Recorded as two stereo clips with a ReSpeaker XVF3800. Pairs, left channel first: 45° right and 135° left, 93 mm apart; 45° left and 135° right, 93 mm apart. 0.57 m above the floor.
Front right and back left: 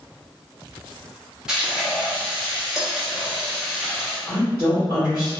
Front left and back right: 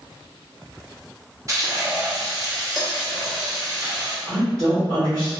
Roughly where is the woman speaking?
Behind.